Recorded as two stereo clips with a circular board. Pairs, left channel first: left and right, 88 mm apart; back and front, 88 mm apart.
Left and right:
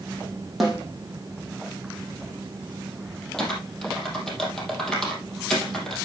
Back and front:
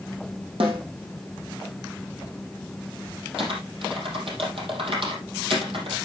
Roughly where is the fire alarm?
No fire alarm in this recording.